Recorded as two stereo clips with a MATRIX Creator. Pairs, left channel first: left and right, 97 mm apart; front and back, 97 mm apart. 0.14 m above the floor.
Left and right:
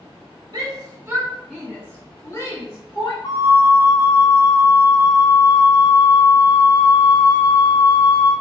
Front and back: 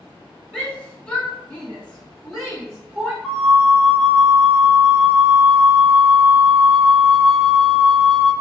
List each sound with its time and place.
0.5 s a shout: 75° right, 2.0 m; by 3.1 s 85° left, 2.5 m
3.2 s a flute: 90° left, 0.8 m